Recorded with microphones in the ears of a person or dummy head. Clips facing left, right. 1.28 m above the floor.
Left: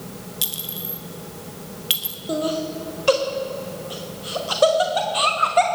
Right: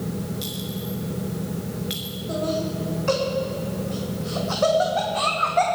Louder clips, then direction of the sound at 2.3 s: Left 2 dB; 45° left (ahead or behind).